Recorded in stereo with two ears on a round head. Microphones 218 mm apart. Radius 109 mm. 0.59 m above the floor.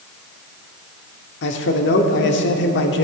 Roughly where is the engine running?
No engine running in this recording.